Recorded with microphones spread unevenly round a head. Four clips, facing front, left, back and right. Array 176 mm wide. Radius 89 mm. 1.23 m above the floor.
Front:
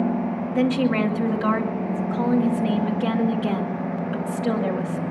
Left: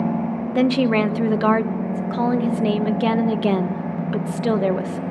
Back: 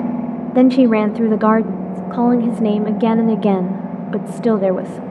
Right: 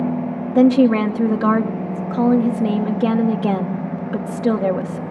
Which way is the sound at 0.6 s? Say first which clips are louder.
Right 5 dB, back 10 dB; straight behind.